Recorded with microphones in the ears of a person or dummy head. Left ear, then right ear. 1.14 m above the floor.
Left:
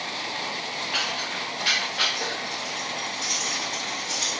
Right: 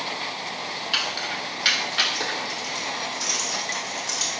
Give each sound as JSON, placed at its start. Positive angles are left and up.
{"t": 0.9, "sound": "keys jangling", "side_deg": -45, "distance_m": 1.3}